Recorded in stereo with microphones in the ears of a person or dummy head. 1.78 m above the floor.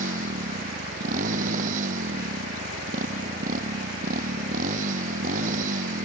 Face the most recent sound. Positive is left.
turn(degrees=-50)  # may be behind; listen again after turning